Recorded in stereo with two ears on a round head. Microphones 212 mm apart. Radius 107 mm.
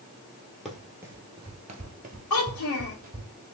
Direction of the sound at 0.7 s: Centre (ahead or behind).